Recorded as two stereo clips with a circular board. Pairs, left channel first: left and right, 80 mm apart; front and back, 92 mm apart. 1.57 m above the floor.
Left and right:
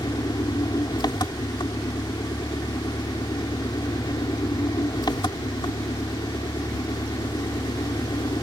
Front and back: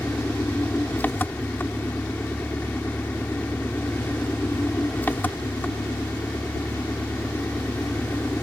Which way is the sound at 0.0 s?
70° left.